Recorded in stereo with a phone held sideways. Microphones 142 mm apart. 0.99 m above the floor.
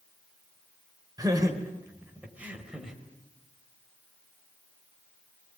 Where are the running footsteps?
No running footsteps in this recording.